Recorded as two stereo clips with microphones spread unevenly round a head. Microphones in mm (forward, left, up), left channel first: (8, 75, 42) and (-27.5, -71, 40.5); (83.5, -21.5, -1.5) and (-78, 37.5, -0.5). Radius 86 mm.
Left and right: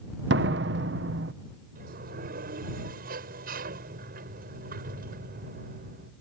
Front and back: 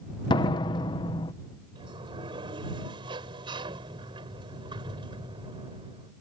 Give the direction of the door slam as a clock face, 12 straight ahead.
3 o'clock.